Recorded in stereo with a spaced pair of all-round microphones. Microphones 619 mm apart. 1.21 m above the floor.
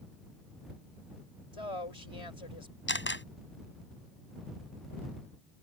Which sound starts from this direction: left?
A woman speaking, at 1.5 s.